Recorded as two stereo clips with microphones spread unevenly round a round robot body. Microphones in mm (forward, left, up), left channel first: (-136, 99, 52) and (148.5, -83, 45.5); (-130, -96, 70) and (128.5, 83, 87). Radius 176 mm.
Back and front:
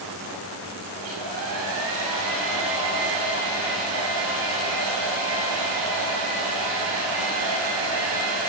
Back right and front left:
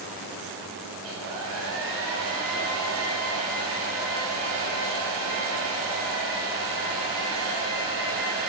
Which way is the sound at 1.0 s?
10° right.